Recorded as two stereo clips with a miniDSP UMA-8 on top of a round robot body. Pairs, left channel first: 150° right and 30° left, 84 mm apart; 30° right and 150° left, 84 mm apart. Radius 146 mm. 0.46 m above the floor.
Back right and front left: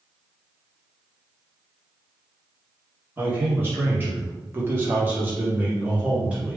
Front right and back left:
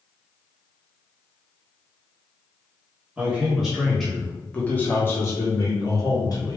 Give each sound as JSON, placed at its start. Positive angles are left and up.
{"t": 3.2, "sound": "a man speaking", "azimuth_deg": 80, "distance_m": 1.5}